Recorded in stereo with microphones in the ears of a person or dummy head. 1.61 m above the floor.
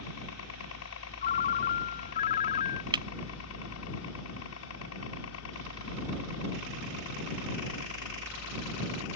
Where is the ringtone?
25° left (ahead or behind).